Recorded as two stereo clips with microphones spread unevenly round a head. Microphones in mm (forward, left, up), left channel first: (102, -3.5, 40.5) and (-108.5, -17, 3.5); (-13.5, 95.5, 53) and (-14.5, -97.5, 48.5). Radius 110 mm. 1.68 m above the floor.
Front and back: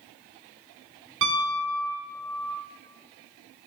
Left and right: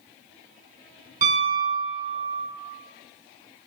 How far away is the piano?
About 1.2 m.